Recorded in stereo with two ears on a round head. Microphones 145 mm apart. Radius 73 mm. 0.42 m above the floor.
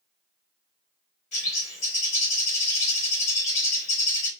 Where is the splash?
No splash in this recording.